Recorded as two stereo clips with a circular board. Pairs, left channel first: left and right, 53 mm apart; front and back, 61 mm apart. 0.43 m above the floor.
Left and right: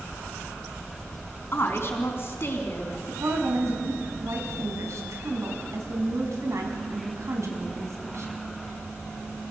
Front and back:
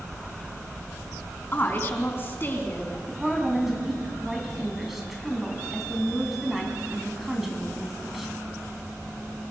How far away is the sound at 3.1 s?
About 4 m.